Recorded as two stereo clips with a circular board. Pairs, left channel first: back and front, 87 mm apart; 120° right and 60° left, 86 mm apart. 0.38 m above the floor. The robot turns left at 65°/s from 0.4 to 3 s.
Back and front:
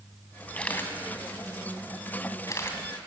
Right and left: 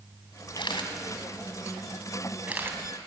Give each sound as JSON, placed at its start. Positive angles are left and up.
{"t": 0.6, "sound": "a camera shutter", "azimuth_deg": -100, "distance_m": 2.5}